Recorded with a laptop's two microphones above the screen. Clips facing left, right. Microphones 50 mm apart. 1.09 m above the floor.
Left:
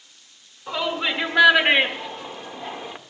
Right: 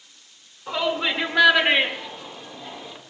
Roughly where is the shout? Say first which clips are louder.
Right 1 dB; centre.